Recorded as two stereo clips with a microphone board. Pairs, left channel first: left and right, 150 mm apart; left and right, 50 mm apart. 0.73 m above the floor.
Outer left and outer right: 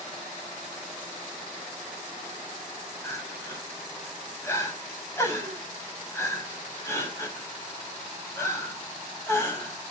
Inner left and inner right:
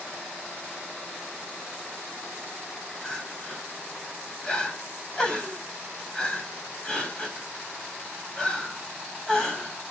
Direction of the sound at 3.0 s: 20° left (ahead or behind).